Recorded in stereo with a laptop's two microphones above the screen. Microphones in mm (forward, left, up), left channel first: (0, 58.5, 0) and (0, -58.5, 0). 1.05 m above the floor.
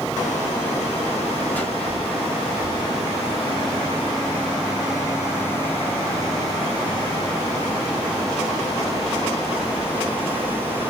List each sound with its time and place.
1.5 s a whoosh: 15° left (ahead or behind), 2 m